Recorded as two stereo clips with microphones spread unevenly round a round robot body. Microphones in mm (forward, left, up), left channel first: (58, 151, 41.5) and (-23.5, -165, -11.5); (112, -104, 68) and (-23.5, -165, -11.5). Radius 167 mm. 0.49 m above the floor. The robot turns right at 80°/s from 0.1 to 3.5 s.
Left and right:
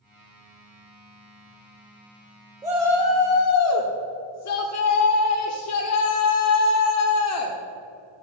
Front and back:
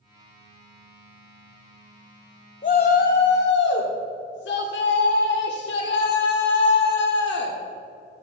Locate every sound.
2.6 s a shout: 35° right, 1.1 m; by 7.6 s 35° left, 1.1 m